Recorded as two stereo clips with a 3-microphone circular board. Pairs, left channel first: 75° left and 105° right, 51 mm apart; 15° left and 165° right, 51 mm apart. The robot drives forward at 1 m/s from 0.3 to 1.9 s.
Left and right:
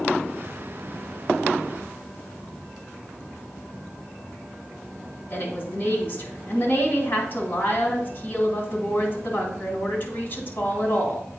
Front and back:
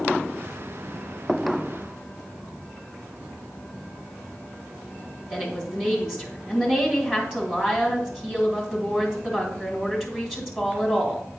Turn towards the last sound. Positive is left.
turn(degrees=120)